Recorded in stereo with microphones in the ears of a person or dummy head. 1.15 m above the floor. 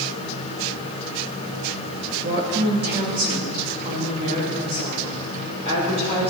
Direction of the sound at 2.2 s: 55° right (ahead or behind).